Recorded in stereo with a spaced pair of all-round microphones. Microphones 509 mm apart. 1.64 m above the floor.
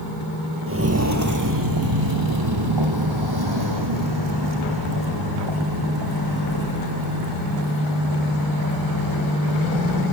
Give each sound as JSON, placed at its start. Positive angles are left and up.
{"t": 0.7, "sound": "footsteps", "side_deg": -25, "distance_m": 1.9}